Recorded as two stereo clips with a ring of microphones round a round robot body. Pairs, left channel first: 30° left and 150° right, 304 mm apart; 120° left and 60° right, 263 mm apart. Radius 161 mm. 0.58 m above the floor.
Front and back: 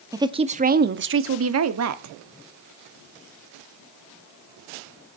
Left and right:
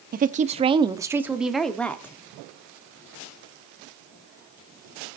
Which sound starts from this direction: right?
A woman speaking, at 0.1 s.